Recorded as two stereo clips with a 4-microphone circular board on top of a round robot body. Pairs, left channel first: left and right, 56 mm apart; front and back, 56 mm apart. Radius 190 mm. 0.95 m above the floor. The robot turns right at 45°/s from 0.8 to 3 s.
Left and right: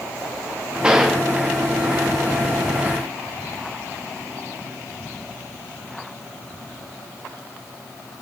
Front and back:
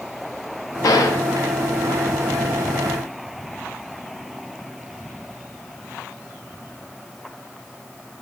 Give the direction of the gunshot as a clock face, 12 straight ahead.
1 o'clock.